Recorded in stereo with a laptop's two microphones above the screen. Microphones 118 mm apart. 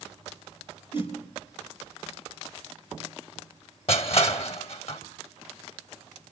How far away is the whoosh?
About 4 m.